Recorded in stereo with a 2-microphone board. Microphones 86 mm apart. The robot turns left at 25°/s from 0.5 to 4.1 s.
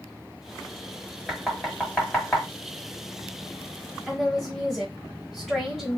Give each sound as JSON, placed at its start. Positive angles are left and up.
{"t": 1.3, "sound": "knocking", "side_deg": -5, "distance_m": 1.3}
{"t": 4.1, "sound": "a woman speaking", "side_deg": -5, "distance_m": 0.9}